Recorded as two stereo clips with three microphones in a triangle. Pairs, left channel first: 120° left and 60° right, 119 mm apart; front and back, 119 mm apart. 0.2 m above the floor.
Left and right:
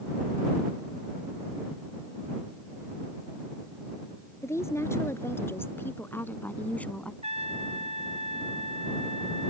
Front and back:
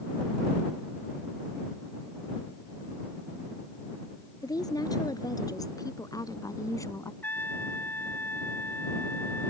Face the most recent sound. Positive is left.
turn(degrees=-70)